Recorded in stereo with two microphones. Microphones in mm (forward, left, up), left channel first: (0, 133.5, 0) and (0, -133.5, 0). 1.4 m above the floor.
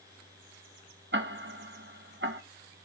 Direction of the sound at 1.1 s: 50° right (ahead or behind).